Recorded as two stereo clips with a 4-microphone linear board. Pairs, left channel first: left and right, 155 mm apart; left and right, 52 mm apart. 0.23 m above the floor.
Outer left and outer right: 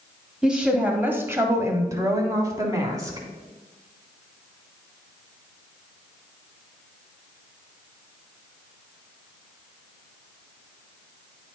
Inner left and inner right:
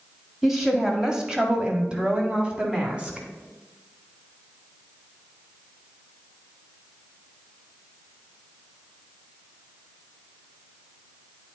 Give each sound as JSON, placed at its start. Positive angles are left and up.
{"t": 0.4, "sound": "a woman speaking", "side_deg": -5, "distance_m": 1.2}